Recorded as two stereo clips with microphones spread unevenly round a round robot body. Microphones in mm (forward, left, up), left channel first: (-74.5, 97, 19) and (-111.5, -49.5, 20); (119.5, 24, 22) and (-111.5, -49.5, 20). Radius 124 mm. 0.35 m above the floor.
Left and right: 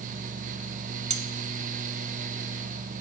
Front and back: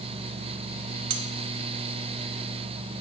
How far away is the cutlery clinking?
About 1.4 m.